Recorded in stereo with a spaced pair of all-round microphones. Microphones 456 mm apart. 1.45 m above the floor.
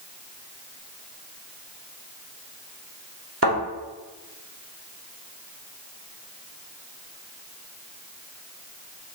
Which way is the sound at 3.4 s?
30° right (ahead or behind).